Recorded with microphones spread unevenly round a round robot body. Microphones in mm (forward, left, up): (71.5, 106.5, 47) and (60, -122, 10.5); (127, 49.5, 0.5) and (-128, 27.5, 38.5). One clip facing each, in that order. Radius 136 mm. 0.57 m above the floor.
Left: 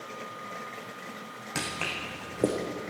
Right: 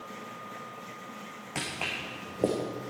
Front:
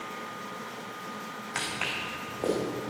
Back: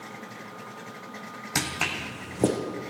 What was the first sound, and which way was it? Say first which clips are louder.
Footsteps: left 2 dB, back 7 dB; 160° left.